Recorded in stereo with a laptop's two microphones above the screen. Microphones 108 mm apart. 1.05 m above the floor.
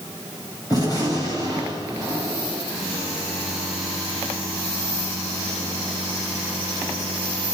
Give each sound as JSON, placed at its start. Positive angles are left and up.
{"t": 0.7, "sound": "a gunshot", "side_deg": 35, "distance_m": 6.5}